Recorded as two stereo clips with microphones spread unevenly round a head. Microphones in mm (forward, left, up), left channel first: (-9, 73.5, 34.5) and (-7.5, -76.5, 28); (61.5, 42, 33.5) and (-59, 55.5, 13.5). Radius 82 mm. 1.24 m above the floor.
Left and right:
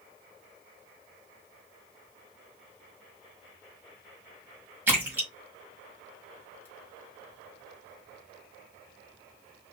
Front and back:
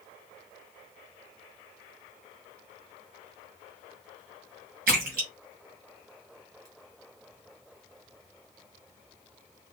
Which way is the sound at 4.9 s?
170° right.